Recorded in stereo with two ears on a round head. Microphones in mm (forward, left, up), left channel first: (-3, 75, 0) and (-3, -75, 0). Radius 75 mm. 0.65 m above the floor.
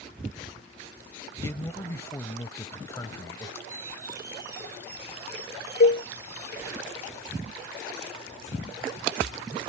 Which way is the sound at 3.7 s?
15° right (ahead or behind).